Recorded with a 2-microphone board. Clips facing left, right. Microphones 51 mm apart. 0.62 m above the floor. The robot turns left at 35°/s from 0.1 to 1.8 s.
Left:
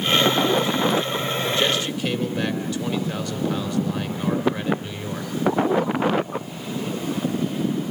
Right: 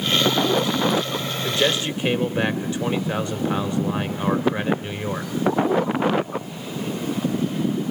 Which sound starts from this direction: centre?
A man speaking, at 1.4 s.